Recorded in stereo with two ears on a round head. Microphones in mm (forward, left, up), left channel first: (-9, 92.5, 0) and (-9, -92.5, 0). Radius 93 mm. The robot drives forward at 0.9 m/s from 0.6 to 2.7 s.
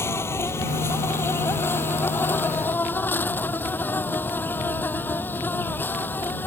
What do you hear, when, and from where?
0.0 s an insect: 15° left (ahead or behind); by 6.5 s 10° left (ahead or behind)